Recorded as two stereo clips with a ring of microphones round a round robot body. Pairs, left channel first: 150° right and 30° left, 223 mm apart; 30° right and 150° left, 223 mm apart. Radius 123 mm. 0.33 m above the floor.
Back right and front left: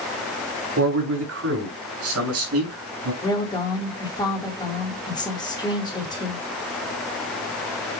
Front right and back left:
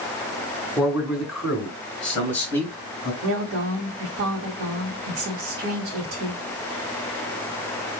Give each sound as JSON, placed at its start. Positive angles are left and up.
{"t": 0.8, "sound": "a man speaking", "azimuth_deg": 65, "distance_m": 3.5}
{"t": 3.2, "sound": "a woman speaking", "azimuth_deg": 140, "distance_m": 2.0}